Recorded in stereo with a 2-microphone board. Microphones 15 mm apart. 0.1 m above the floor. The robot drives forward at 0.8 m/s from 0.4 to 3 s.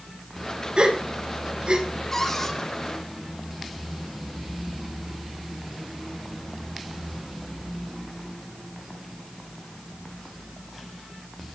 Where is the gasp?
80° right, 7.5 m; by 1.8 s 75° right (ahead or behind), 7.5 m.